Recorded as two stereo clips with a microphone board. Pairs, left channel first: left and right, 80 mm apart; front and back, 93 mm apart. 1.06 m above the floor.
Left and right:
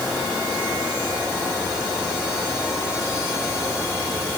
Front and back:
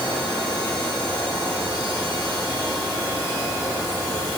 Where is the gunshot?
I don't hear a gunshot.